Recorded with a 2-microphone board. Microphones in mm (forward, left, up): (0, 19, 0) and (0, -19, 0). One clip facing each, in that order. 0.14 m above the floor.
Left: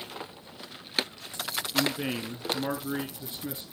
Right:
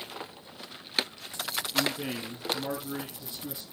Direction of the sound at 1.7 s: 20° left (ahead or behind).